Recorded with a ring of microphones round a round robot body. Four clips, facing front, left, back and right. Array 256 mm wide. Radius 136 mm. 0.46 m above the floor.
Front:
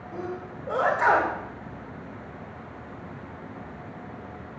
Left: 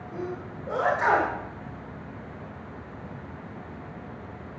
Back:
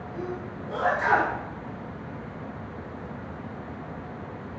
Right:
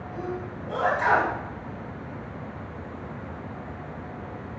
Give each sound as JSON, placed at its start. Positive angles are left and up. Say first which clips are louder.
{"t": 0.1, "sound": "a sneeze", "louder": "right 1 dB, even", "azimuth_deg": 25, "distance_m": 2.0}